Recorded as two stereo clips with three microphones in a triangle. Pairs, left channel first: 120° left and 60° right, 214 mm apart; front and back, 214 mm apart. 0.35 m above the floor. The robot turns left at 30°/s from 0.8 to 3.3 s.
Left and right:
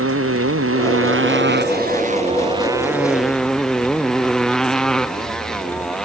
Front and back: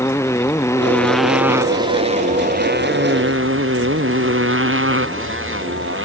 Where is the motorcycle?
80° right; by 6.0 s 155° right.